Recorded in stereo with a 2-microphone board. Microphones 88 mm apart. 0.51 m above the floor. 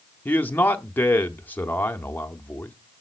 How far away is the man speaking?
About 0.7 m.